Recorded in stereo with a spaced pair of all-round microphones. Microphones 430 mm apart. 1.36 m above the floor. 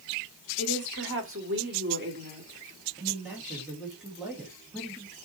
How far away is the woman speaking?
About 3 m.